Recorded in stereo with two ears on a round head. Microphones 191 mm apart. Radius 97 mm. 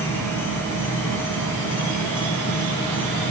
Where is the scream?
No scream in this recording.